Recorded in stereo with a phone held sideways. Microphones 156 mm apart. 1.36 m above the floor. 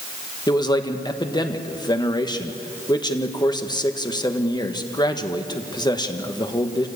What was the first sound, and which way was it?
A man speaking, 25° left (ahead or behind).